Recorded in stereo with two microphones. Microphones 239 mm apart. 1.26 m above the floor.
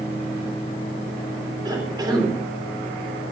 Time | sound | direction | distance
1.6 | a cough | 15° right (ahead or behind) | 3 m